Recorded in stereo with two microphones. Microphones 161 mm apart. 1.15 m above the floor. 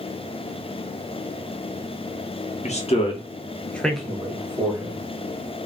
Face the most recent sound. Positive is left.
turn(degrees=-25)  # may be behind; listen again after turning